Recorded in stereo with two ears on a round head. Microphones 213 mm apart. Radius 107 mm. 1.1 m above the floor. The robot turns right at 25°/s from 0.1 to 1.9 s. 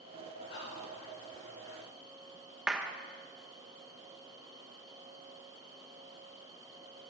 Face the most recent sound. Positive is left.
turn(degrees=-5)  # may be behind; listen again after turning